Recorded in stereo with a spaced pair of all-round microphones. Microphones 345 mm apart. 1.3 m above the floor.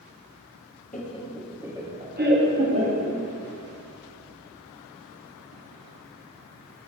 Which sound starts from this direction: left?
Laughter, at 0.9 s.